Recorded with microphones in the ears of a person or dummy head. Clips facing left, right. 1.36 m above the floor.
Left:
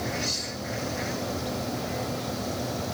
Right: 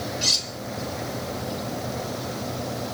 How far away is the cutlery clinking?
About 1.7 m.